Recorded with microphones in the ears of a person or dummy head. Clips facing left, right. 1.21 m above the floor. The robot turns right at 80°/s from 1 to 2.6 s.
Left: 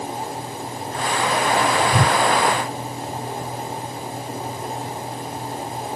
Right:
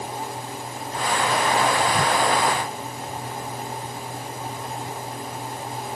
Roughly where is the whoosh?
Left.